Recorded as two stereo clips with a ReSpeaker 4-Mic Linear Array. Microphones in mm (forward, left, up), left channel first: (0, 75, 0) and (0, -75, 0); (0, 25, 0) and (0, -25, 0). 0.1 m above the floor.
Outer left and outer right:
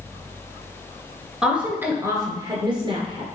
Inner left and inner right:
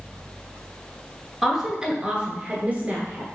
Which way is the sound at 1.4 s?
5° right (ahead or behind).